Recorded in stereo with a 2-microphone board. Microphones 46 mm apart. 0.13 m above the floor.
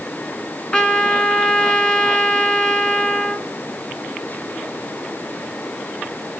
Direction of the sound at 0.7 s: 20° left (ahead or behind).